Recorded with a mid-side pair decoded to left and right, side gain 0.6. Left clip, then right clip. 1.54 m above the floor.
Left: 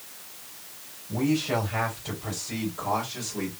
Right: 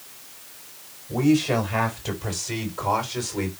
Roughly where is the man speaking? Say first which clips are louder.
Right 5 dB; ahead right.